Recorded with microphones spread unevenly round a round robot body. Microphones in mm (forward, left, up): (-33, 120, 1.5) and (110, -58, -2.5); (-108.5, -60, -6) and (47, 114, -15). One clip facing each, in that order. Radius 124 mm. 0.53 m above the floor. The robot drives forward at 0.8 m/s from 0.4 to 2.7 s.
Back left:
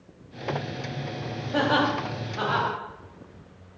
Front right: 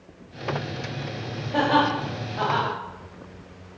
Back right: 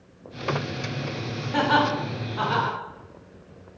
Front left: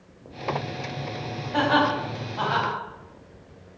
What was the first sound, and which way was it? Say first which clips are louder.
Laughter: front right 2 dB, front left 1 dB; 150° right.